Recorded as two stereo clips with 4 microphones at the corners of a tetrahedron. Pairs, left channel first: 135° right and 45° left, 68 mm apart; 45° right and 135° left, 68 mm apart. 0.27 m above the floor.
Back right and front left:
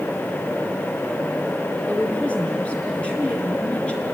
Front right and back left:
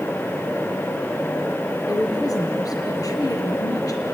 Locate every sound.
1.9 s a woman speaking: 60° right, 4.5 m